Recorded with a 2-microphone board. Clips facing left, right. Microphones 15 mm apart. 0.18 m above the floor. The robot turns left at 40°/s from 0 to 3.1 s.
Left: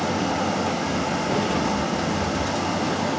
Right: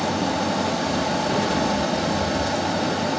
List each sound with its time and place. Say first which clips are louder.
0.0 s running water: right 1 dB; 10° right, 6.5 m; by 3.2 s 135° right, 6.5 m